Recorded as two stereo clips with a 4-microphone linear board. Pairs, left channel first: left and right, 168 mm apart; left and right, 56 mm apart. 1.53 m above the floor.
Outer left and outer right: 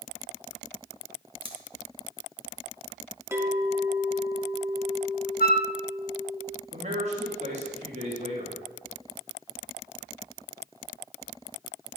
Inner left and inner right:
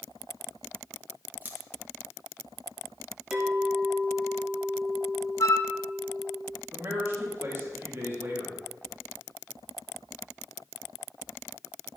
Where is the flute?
55° left (ahead or behind), 1.0 m.